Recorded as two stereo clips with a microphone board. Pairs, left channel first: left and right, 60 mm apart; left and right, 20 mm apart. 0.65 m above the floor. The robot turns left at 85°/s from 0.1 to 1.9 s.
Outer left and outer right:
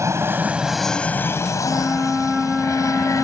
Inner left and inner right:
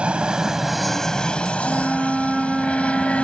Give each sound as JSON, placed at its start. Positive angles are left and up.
{"t": 0.0, "sound": "an aircraft", "azimuth_deg": -120}
{"t": 1.6, "sound": "a flute", "side_deg": -30}